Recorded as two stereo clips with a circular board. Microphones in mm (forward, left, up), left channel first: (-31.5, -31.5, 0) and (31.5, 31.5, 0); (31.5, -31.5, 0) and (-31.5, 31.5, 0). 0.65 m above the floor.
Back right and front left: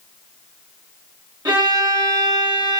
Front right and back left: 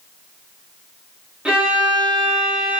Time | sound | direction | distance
1.4 | a violin | 60° left | 0.8 m